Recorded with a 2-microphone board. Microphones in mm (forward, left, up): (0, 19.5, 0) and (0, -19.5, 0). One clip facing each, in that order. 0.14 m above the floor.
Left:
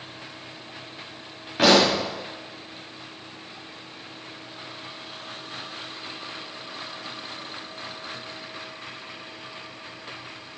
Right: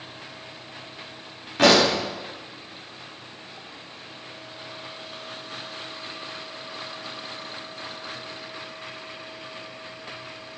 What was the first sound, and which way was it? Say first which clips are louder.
A pop: even; 10° left (ahead or behind).